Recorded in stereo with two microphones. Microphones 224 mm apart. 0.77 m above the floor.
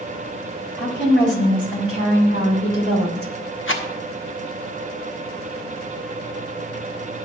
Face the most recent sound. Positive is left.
turn(degrees=60)  # may be behind; listen again after turning